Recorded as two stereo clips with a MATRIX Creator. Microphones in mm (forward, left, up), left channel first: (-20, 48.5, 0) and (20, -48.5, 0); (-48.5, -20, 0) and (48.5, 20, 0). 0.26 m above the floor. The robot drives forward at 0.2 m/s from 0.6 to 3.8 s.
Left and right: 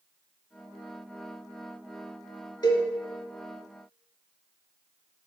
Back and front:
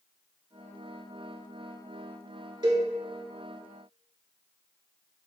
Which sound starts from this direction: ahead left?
A cowbell, at 2.6 s.